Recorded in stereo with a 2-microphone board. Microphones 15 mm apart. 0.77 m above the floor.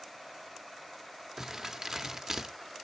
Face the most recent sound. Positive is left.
turn(degrees=-35)  # may be behind; listen again after turning